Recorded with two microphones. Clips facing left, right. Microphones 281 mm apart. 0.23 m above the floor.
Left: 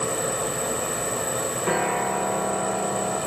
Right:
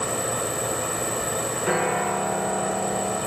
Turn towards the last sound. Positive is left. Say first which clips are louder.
# right 1 dB
turn(degrees=-5)  # may be behind; listen again after turning